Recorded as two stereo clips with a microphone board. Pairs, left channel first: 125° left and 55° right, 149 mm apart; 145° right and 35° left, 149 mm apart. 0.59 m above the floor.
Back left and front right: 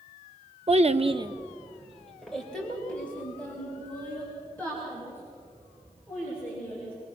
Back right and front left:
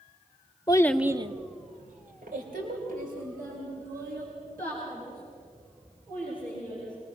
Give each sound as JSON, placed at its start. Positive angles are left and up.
{"t": 0.7, "sound": "a child speaking", "azimuth_deg": -90, "distance_m": 0.9}